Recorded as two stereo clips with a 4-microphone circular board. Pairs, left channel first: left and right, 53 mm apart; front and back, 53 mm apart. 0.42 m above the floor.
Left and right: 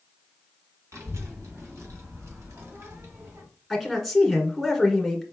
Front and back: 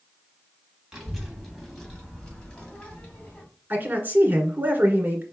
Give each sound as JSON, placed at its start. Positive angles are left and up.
{"t": 0.9, "sound": "a child speaking", "azimuth_deg": -95, "distance_m": 2.5}
{"t": 3.7, "sound": "a man speaking", "azimuth_deg": -175, "distance_m": 1.7}